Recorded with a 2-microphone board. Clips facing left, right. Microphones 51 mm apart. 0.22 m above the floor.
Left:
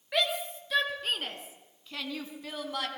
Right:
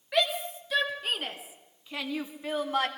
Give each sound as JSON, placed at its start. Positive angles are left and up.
{"t": 0.1, "sound": "a shout", "side_deg": 0, "distance_m": 4.0}